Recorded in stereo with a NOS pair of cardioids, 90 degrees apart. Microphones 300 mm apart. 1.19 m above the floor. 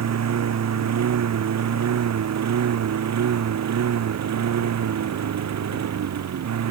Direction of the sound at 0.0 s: 60° right.